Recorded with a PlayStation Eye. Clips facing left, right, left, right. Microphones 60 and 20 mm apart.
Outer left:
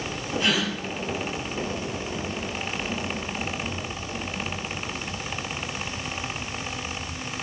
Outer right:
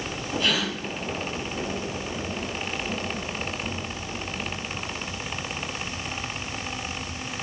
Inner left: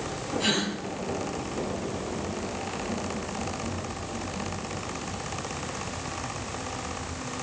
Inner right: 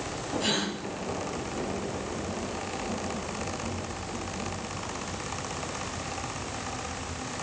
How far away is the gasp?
About 3.5 m.